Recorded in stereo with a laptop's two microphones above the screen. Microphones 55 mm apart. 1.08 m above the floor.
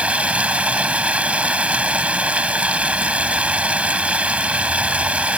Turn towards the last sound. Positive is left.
turn(degrees=-25)  # may be behind; listen again after turning